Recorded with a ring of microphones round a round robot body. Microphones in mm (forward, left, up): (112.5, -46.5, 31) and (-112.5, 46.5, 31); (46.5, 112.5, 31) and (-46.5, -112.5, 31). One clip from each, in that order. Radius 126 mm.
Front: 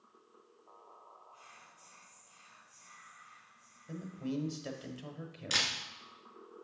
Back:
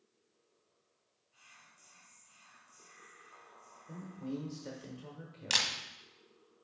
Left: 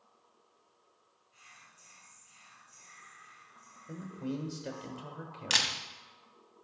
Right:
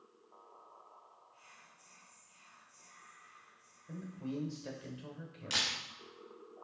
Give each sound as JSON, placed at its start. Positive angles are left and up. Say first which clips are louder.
{"t": 1.3, "sound": "whispering", "louder": "front 5 dB, left 8 dB", "azimuth_deg": 70, "distance_m": 2.5}
{"t": 3.9, "sound": "a man speaking", "louder": "front 3 dB, left 4 dB", "azimuth_deg": 40, "distance_m": 1.0}
{"t": 5.5, "sound": "a camera shutter", "louder": "back 1 dB, left 5 dB", "azimuth_deg": 120, "distance_m": 1.3}